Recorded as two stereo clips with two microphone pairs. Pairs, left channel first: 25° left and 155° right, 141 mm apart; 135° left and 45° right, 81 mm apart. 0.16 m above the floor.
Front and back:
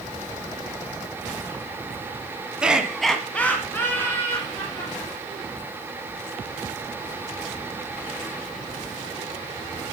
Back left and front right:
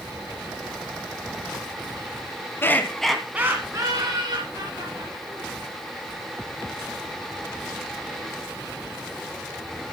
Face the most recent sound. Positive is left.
turn(degrees=-45)